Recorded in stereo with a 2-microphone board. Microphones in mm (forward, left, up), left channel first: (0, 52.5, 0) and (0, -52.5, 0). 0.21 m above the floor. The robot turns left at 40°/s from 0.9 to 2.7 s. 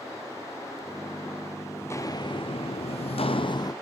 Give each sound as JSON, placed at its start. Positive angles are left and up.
{"t": 1.8, "sound": "footsteps", "side_deg": 15, "distance_m": 1.0}